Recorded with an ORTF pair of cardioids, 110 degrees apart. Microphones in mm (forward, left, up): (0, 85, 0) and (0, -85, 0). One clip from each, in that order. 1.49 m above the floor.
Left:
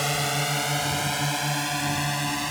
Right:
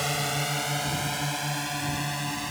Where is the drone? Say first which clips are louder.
Left 3 dB; 10° left; by 2.5 s 20° left.